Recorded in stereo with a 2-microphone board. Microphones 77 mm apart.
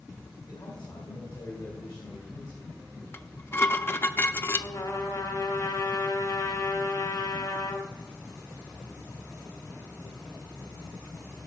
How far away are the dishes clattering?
About 0.5 m.